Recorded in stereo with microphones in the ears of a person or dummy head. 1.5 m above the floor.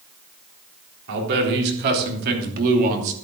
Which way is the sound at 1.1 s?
65° right (ahead or behind).